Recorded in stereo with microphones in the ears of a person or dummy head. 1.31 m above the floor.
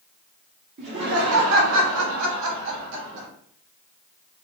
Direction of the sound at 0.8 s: 45° right (ahead or behind).